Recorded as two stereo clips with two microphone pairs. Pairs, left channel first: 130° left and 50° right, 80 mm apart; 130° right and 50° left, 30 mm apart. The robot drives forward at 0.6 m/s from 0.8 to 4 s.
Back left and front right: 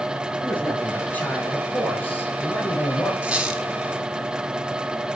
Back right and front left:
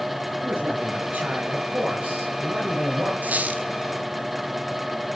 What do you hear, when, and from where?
0.4 s a man speaking: 60° left, 8 m; by 3.1 s 70° left, 7.5 m
3.2 s a squeak: 25° left, 1.8 m; by 3.7 s 30° left, 1.6 m